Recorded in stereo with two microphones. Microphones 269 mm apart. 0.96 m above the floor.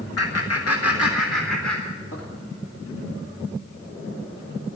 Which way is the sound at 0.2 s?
60° left (ahead or behind).